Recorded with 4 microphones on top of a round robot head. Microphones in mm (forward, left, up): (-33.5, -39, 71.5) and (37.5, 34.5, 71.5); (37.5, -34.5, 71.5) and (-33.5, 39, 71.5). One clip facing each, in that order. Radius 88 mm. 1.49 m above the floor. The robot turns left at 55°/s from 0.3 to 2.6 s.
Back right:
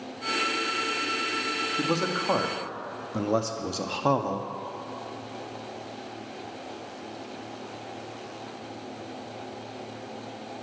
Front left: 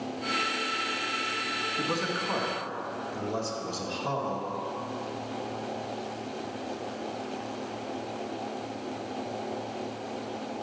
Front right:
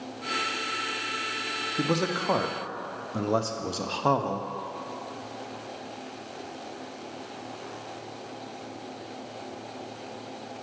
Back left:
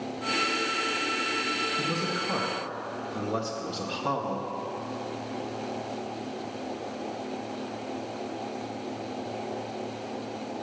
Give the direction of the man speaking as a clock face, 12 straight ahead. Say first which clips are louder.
Back right 4 dB, front right 3 dB; 2 o'clock.